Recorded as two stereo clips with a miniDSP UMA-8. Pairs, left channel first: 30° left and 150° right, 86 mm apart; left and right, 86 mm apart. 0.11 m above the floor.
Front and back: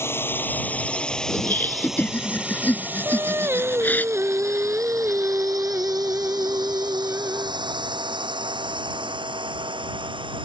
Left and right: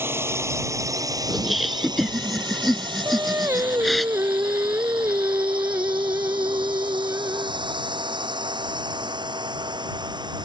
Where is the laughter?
5° left.